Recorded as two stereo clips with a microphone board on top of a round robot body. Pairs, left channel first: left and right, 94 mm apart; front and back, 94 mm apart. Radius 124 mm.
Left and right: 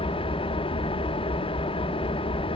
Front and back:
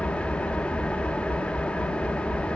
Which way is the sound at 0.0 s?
80° left.